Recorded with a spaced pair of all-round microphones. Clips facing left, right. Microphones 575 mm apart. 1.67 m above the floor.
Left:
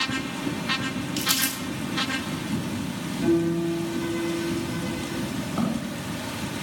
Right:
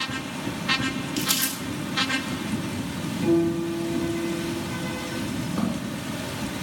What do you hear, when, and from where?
1.2 s crumpling: 30° right (ahead or behind), 3.5 m
3.2 s a piano: 65° right (ahead or behind), 6 m
5.6 s footsteps: 5° left (ahead or behind), 7 m